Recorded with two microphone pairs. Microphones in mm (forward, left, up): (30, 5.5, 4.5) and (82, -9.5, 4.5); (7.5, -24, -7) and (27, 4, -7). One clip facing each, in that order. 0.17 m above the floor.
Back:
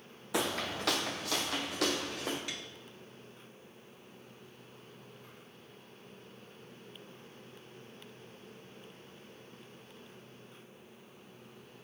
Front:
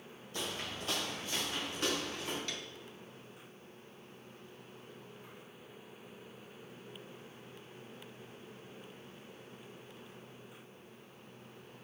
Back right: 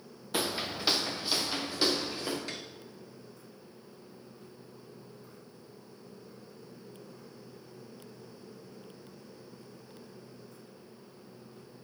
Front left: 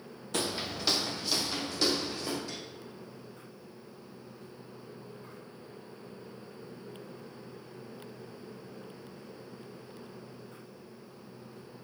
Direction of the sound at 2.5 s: 120° right.